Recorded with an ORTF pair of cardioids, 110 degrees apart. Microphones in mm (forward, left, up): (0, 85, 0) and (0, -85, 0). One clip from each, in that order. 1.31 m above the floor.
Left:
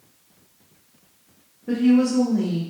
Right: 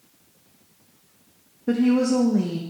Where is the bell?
I don't hear a bell.